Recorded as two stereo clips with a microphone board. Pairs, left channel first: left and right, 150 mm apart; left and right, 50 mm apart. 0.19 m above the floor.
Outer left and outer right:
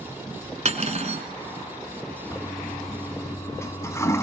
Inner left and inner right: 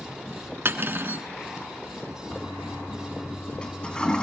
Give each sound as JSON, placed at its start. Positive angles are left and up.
{"t": 0.7, "sound": "cutlery clinking", "side_deg": -50, "distance_m": 1.2}
{"t": 2.3, "sound": "a toilet flushing", "side_deg": 20, "distance_m": 1.2}